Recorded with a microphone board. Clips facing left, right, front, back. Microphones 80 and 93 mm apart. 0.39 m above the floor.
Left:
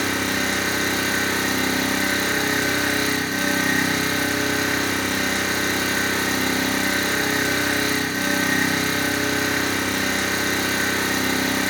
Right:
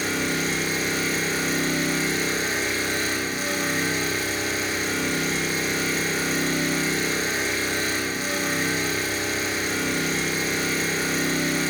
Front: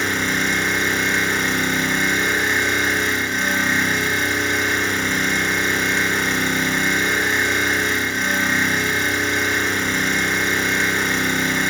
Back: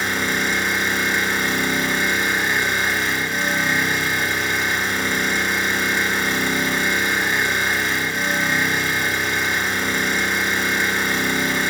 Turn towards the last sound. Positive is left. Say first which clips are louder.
# left 2 dB, front 1 dB
turn(degrees=95)